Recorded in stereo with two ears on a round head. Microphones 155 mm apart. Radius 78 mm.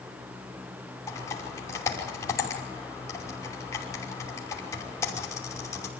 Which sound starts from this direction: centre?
Typing on a keyboard, at 1.1 s.